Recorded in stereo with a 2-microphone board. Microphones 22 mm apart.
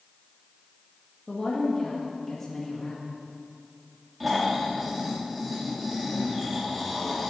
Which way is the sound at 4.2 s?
10° right (ahead or behind).